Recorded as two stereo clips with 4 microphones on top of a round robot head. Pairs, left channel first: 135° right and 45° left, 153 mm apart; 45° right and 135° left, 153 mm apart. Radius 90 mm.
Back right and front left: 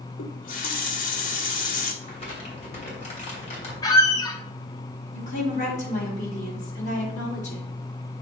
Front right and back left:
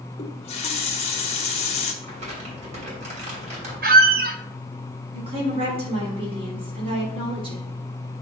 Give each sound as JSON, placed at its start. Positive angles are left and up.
{"t": 0.2, "sound": "a running tap", "azimuth_deg": -100, "distance_m": 1.1}
{"t": 2.0, "sound": "crumpling", "azimuth_deg": 180, "distance_m": 2.5}
{"t": 3.8, "sound": "a squeak", "azimuth_deg": 160, "distance_m": 0.7}
{"t": 5.1, "sound": "a woman speaking", "azimuth_deg": -170, "distance_m": 3.5}